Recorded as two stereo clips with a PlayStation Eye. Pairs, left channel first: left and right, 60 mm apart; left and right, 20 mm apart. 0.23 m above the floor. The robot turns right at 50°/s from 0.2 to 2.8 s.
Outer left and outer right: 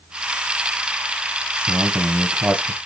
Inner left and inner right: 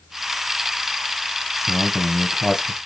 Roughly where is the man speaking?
Right.